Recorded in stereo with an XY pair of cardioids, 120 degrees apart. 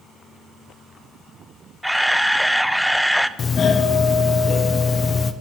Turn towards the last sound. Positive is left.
turn(degrees=40)